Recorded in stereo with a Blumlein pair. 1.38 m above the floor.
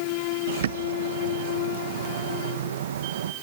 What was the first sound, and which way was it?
A bird, 60° right.